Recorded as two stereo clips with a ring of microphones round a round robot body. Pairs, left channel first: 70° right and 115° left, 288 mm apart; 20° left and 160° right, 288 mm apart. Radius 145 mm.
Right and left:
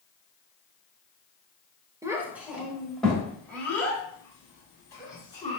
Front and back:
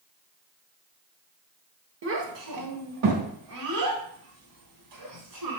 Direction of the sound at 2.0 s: 170° right.